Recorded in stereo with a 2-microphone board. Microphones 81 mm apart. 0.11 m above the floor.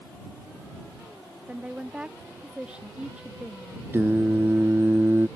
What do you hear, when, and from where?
1.5 s a woman speaking: 15° right (ahead or behind)
3.9 s singing: 30° right (ahead or behind)